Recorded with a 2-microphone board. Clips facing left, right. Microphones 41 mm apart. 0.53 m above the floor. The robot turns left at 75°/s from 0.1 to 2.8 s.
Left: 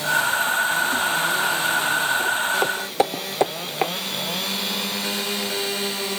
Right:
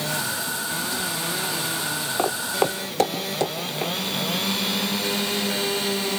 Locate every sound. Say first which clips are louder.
2.2 s footsteps: left 2 dB; 55° right (ahead or behind), 1.3 m; by 3.9 s 35° left (ahead or behind), 1.9 m